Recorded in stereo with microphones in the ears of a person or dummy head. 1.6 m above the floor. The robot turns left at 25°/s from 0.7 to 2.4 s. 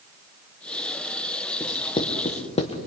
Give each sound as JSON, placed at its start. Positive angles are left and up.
{"t": 1.6, "sound": "writing", "side_deg": 20, "distance_m": 1.5}